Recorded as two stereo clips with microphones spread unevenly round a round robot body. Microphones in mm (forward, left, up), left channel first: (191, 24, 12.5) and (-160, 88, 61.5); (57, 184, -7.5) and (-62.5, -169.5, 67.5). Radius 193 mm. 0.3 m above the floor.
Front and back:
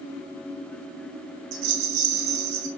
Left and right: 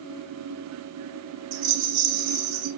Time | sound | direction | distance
1.5 | a rattle | 150° right | 4.5 m